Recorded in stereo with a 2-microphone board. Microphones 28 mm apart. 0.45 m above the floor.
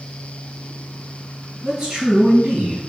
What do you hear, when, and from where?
1.6 s a man speaking: 30° right (ahead or behind), 2.5 m